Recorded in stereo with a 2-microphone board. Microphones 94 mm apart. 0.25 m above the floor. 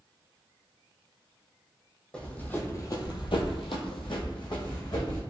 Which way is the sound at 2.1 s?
10° left (ahead or behind).